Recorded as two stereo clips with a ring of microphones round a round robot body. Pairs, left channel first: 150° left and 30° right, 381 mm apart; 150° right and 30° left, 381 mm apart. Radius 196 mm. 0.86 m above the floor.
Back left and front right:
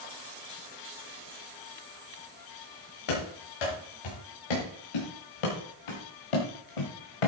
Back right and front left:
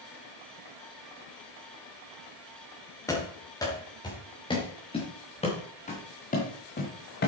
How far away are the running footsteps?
About 6 m.